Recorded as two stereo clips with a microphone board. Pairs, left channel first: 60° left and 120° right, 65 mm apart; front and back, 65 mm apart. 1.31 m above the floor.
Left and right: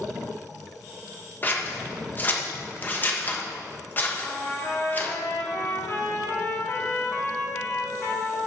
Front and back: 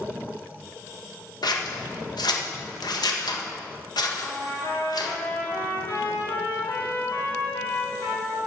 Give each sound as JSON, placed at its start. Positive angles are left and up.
{"t": 1.4, "sound": "scissors", "azimuth_deg": 0, "distance_m": 1.2}
{"t": 4.2, "sound": "a trumpet", "azimuth_deg": 15, "distance_m": 3.5}